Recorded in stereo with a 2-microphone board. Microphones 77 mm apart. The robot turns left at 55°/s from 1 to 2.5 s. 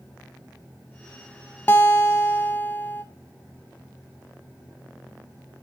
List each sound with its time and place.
1.7 s a guitar: 30° left (ahead or behind), 0.8 m; by 3.0 s 25° left (ahead or behind), 0.8 m